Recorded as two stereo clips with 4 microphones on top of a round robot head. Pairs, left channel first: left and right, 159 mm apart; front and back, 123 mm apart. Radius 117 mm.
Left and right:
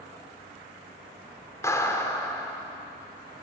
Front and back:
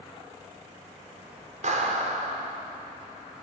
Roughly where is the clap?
Behind.